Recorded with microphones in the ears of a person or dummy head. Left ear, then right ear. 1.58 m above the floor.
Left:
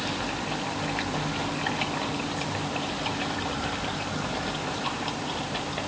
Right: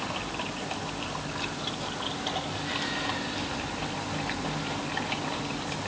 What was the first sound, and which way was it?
Only background noise.